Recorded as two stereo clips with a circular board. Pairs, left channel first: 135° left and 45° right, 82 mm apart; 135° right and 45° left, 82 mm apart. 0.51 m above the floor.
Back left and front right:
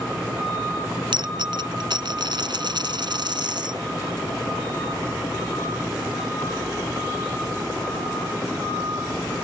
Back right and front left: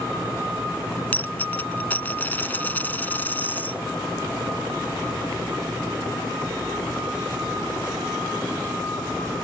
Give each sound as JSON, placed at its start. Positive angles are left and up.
{"t": 1.1, "sound": "a dropped coin", "azimuth_deg": -65}